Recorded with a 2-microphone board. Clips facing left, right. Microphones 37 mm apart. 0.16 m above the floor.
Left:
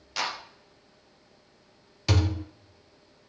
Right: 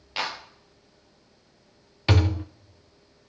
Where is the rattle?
I don't hear a rattle.